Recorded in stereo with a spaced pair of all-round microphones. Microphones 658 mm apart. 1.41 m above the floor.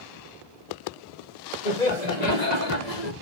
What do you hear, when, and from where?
1.6 s laughter: 85° left, 2.5 m